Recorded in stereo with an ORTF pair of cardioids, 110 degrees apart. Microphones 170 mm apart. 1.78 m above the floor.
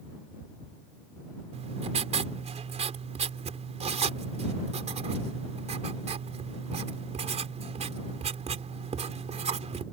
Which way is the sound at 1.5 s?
40° right.